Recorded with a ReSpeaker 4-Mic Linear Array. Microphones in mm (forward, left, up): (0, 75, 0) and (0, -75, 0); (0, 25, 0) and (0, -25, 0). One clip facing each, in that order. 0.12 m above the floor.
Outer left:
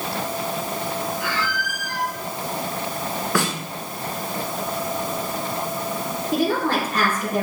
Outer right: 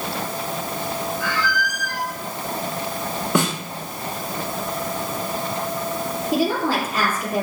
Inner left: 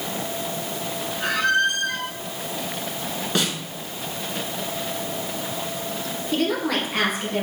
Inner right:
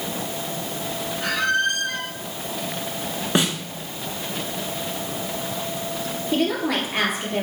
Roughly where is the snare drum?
Right.